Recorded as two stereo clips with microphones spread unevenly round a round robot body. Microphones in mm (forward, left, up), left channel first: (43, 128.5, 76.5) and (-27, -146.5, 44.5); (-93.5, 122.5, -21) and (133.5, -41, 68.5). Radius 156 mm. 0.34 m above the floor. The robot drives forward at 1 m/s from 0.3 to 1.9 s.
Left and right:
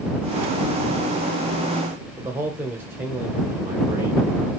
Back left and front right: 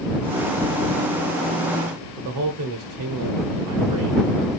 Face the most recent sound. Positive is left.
turn(degrees=-30)